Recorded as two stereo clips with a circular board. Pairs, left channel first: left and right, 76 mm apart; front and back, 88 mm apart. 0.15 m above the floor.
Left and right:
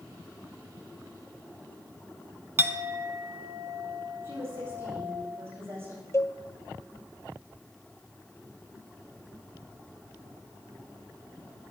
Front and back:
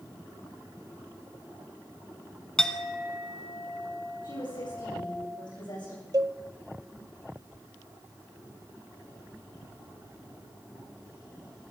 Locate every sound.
2.6 s a clink: 75° right, 0.8 m
4.2 s a woman speaking: 30° right, 9 m
6.1 s a cowbell: 140° left, 0.6 m